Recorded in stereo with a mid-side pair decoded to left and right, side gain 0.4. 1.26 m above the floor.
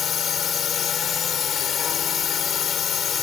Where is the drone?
60° left.